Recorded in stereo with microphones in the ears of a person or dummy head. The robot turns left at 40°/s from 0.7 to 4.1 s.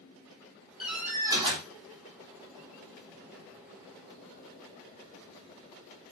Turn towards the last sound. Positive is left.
turn(degrees=-135)